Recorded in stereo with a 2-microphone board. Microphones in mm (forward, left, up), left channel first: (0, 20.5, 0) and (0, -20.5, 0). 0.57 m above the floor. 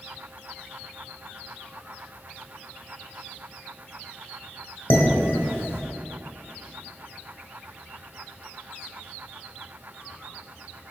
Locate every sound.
4.9 s dishes clattering: 75° left (ahead or behind), 1.4 m